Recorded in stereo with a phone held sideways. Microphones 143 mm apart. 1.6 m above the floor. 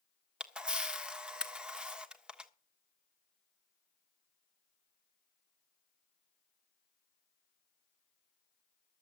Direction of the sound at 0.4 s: 5° right (ahead or behind).